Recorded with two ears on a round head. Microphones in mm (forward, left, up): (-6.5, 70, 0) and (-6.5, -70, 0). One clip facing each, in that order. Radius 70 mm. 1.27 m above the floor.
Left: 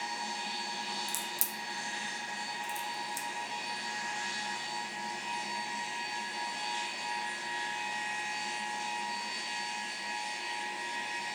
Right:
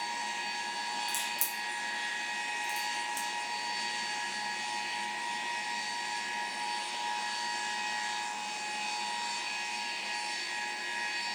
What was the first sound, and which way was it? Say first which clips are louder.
A crack: right 2 dB; 15° left (ahead or behind).